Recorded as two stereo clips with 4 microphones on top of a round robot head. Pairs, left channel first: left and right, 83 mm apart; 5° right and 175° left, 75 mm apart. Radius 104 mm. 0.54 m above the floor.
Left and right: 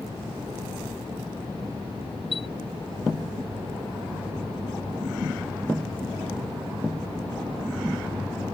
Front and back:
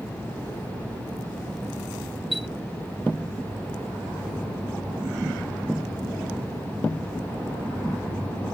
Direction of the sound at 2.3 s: 90° left.